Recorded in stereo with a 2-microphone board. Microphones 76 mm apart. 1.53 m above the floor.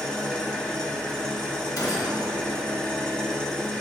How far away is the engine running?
About 1.0 m.